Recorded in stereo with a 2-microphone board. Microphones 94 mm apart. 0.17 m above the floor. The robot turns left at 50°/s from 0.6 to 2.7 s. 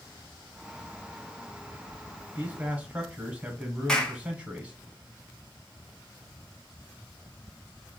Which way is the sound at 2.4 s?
15° right (ahead or behind).